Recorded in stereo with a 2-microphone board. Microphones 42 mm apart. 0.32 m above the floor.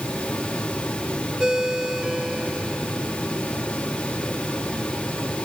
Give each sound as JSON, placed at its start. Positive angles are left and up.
{"t": 1.4, "sound": "a ringtone", "side_deg": -20}